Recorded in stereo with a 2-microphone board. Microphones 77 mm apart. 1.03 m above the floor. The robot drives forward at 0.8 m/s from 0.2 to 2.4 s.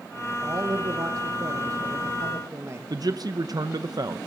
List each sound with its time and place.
0.4 s a man speaking: 40° right (ahead or behind), 1.3 m; by 2.8 s 35° right (ahead or behind), 1.5 m
2.9 s a man speaking: 55° right (ahead or behind), 0.6 m